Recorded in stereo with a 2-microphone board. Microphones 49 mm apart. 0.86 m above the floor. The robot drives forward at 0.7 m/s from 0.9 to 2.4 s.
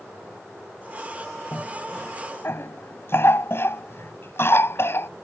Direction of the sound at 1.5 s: 55° left (ahead or behind).